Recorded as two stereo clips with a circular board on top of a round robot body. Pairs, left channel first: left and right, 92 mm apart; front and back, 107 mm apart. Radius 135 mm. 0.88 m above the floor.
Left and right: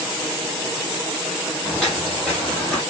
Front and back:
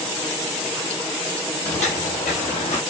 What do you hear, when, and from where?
1.6 s footsteps: straight ahead, 2.0 m; by 2.8 s 15° left, 1.4 m